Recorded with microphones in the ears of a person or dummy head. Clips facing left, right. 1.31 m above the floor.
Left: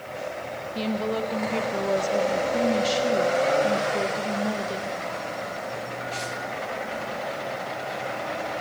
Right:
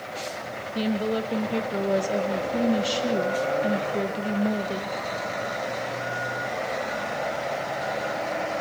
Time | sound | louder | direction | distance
0.8 | a woman speaking | right 2 dB | 15° right (ahead or behind) | 1.6 m